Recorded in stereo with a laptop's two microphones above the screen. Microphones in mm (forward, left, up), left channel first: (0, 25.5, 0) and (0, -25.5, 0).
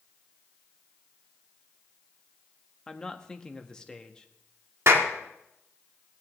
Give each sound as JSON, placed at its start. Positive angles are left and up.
{"t": 2.9, "sound": "a man speaking", "side_deg": 15, "distance_m": 1.3}
{"t": 4.9, "sound": "a clap", "side_deg": -60, "distance_m": 1.5}